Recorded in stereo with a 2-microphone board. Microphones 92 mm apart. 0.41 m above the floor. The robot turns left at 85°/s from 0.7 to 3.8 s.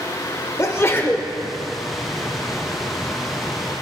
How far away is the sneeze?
About 1.1 m.